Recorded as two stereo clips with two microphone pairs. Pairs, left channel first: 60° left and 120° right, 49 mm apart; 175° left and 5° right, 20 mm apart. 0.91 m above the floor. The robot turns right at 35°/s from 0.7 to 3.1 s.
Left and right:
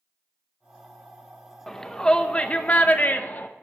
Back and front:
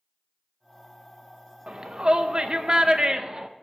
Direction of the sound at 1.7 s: 25° right.